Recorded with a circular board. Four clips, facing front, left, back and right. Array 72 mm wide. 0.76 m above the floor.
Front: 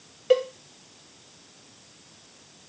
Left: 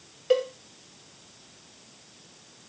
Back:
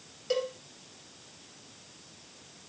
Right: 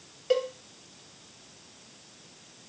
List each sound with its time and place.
0.3 s a cowbell: 15° left, 0.6 m